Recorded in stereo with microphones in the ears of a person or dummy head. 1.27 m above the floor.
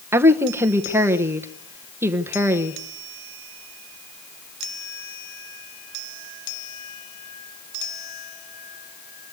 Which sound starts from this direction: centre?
A woman speaking, at 0.1 s.